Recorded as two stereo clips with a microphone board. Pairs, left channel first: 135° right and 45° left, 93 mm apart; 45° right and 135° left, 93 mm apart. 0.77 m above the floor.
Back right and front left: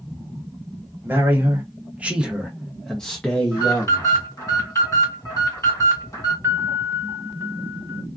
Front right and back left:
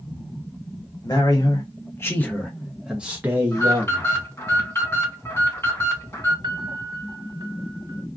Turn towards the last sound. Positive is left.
turn(degrees=100)